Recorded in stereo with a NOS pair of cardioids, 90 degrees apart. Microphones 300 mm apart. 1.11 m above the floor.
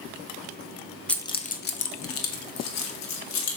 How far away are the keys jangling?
About 0.5 m.